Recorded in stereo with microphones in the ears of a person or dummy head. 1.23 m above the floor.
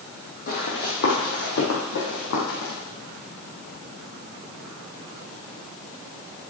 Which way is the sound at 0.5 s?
40° left (ahead or behind).